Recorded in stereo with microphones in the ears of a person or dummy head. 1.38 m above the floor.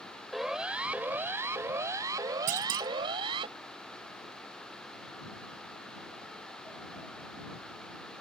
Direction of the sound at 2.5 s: 40° right (ahead or behind).